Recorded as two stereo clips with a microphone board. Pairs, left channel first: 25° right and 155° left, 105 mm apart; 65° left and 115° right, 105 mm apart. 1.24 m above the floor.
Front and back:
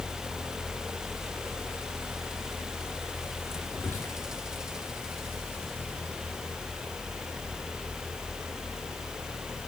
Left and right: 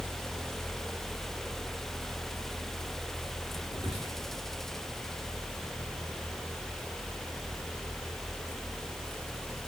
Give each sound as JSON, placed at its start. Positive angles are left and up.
{"t": 3.7, "sound": "whispering", "azimuth_deg": -90, "distance_m": 2.5}